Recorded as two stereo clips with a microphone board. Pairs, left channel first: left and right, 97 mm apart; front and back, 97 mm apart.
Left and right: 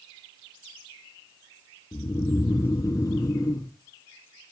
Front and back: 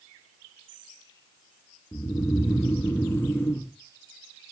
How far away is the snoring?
About 1.1 m.